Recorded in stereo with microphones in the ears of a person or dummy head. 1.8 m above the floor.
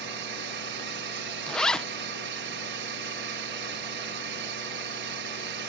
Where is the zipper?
Centre (ahead or behind).